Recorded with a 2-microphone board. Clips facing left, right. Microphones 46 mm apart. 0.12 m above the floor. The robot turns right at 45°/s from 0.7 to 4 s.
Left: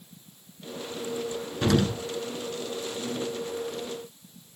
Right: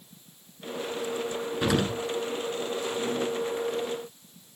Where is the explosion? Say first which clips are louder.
Left 2 dB; 15° right (ahead or behind), 1.2 m.